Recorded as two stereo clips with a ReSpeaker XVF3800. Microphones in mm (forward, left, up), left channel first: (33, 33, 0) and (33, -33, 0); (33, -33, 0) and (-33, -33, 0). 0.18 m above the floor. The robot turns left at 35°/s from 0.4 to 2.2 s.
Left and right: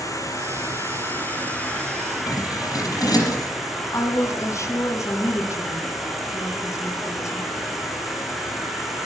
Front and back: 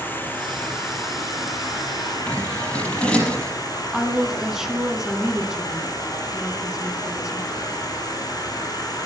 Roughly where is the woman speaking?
Left.